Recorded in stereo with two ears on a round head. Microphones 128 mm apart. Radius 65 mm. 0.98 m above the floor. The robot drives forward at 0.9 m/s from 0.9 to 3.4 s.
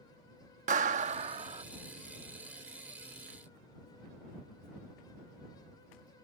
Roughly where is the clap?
Right.